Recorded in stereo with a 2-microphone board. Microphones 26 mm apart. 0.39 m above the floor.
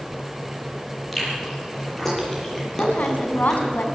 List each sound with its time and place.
1.1 s chewing: 10° left (ahead or behind), 8 m
2.8 s a woman speaking: 70° left (ahead or behind), 3.5 m